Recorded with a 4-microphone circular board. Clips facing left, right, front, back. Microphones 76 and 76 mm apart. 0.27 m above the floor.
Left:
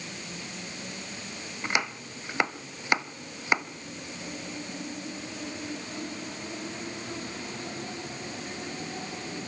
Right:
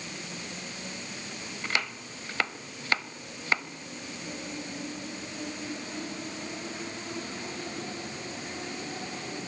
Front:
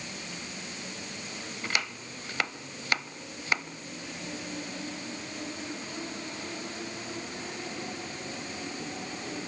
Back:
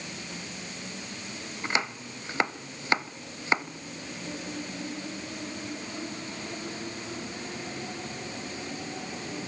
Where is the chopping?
145° left, 0.8 m.